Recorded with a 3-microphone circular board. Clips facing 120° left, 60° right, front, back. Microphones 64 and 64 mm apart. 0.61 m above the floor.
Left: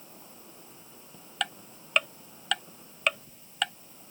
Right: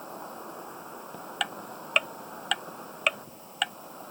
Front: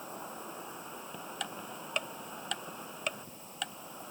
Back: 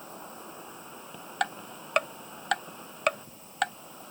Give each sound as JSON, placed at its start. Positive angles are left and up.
{"t": 0.0, "sound": "an insect", "azimuth_deg": -85}
{"t": 1.4, "sound": "ticking", "azimuth_deg": -145}